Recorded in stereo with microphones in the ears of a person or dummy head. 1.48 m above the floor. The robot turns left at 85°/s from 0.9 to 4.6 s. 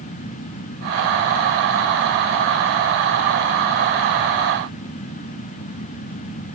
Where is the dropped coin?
No dropped coin in this recording.